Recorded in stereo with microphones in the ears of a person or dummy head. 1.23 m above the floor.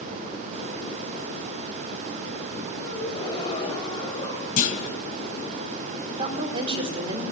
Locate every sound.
2.8 s a gasp: 35° left (ahead or behind), 7 m
4.6 s a clunk: 50° left (ahead or behind), 3 m
6.1 s a woman speaking: 25° right (ahead or behind), 4.5 m